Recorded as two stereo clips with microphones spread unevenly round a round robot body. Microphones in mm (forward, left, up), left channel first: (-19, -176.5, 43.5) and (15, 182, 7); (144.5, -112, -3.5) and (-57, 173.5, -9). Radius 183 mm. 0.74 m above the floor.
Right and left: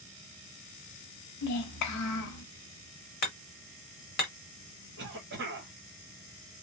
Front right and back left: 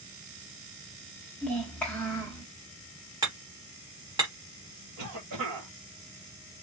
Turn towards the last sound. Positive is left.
turn(degrees=130)